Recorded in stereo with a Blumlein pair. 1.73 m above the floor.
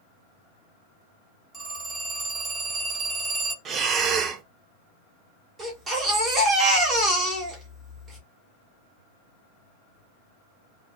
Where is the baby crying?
20° right, 1.8 m.